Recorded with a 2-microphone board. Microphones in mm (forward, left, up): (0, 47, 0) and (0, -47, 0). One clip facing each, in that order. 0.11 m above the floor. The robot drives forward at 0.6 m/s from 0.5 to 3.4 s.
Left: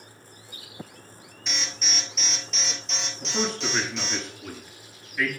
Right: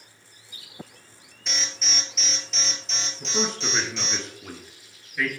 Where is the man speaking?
Centre (ahead or behind), 1.1 m.